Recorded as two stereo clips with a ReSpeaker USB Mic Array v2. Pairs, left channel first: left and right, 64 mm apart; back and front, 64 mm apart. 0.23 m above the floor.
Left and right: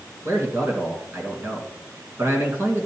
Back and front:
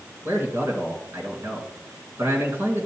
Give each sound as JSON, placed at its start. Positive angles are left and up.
{"t": 0.2, "sound": "a man speaking", "azimuth_deg": -45, "distance_m": 2.5}